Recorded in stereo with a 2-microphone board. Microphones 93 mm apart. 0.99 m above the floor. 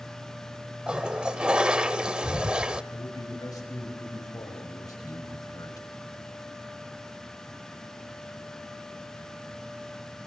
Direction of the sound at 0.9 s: 10° right (ahead or behind).